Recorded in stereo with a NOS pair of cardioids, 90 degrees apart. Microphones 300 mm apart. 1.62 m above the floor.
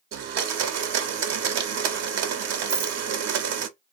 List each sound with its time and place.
0.1 s a blender: 65° right, 0.7 m
2.7 s a rattle: 35° right, 0.7 m